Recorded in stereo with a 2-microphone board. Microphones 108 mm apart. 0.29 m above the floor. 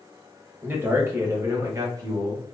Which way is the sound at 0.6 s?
20° right (ahead or behind).